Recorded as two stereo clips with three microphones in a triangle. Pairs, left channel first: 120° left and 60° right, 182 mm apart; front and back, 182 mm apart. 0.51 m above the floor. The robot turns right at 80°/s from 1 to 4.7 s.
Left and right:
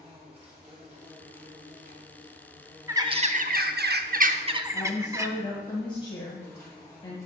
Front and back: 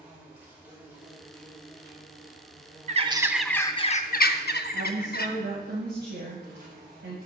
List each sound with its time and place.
0.0 s an insect: 105° right, 3 m; by 7.3 s 170° right, 3 m
2.9 s a bird: 135° right, 0.6 m; by 5.3 s 10° left, 0.6 m
4.7 s a woman speaking: straight behind, 2.5 m